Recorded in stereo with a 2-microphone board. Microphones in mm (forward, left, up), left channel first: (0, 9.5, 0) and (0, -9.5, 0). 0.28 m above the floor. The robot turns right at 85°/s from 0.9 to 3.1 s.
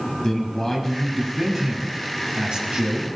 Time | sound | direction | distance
0.2 | a man speaking | 145° left | 2.0 m